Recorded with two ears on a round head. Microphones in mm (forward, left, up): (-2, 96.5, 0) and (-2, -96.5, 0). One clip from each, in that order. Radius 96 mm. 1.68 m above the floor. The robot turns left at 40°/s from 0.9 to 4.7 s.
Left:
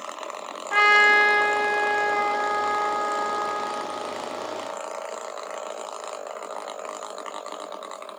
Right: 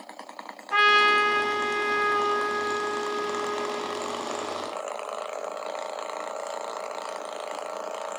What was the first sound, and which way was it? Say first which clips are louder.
A trumpet: left 3 dB; 165° left.